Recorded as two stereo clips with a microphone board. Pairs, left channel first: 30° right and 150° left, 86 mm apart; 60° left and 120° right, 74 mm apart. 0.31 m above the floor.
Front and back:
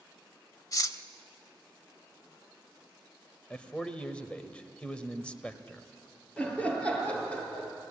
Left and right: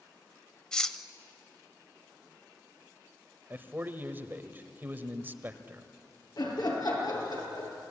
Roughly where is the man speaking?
Right.